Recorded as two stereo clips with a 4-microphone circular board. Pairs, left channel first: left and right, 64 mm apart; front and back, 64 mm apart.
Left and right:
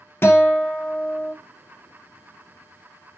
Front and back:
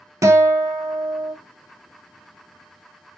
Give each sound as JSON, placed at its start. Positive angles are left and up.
{"t": 0.2, "sound": "a guitar", "azimuth_deg": 145, "distance_m": 0.8}